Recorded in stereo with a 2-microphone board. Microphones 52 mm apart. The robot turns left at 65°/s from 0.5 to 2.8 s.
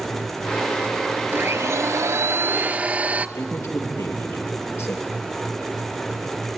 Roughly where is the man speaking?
Left.